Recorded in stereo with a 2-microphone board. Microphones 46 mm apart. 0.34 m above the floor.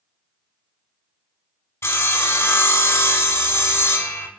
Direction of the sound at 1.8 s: 90° left.